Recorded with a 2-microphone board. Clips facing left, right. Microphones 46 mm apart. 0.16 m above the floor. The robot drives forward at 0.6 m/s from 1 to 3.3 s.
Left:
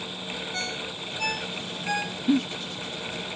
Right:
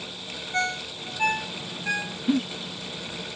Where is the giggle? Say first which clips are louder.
Left 1 dB; 5° left (ahead or behind), 0.7 m.